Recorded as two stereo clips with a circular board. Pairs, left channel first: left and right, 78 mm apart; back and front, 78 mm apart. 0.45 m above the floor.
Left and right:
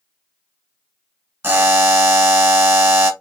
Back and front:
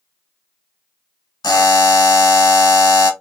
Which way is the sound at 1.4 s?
155° right.